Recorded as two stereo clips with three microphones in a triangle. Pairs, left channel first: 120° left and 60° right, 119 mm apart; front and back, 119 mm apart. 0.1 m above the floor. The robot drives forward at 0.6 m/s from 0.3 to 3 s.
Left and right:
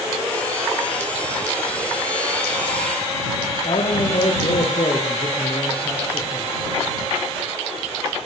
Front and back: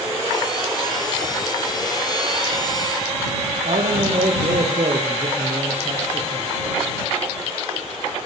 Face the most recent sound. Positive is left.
turn(degrees=155)